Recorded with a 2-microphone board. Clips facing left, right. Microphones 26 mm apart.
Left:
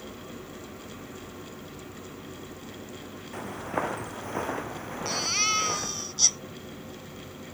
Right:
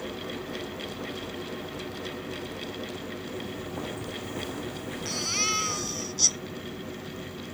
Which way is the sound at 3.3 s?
65° left (ahead or behind).